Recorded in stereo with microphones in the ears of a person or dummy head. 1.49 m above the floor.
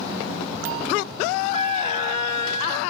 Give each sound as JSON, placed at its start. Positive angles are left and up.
{"t": 1.5, "sound": "a flute", "side_deg": -35, "distance_m": 0.8}